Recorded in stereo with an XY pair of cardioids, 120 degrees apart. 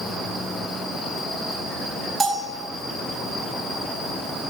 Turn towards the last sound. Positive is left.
turn(degrees=-20)